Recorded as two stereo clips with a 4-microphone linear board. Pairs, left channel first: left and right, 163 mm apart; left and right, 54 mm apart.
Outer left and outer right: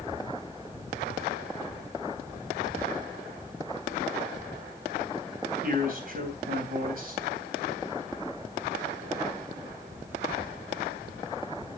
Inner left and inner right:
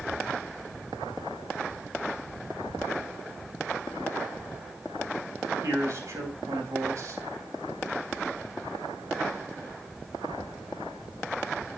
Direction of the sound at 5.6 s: 60° right (ahead or behind).